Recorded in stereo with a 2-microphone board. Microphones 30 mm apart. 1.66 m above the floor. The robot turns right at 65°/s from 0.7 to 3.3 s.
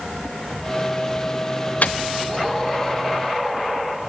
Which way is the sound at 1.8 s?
60° left (ahead or behind).